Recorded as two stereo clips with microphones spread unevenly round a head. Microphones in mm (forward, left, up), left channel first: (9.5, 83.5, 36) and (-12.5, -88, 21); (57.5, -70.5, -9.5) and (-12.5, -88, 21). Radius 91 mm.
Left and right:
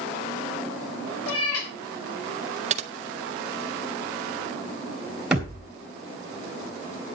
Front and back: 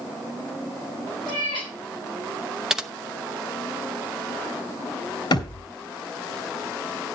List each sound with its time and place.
1.3 s a cat meowing: 80° left, 3.5 m
2.7 s typing on a keyboard: 130° right, 0.8 m
5.3 s a thud: 10° right, 3 m